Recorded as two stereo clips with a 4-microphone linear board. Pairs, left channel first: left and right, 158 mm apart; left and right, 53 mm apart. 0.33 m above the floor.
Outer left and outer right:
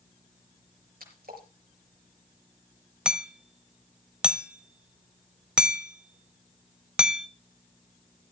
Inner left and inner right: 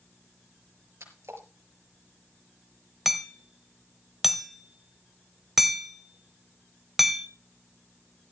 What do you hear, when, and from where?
1.0 s a splash: 65° right (ahead or behind), 5 m
3.0 s hammering: 5° right (ahead or behind), 1.0 m